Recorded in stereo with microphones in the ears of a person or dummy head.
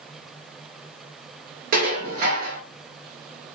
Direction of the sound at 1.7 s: 45° right (ahead or behind).